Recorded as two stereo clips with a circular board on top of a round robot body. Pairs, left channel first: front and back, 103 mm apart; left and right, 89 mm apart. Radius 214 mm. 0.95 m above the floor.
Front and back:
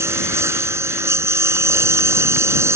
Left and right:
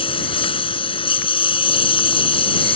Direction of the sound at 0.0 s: 115° left.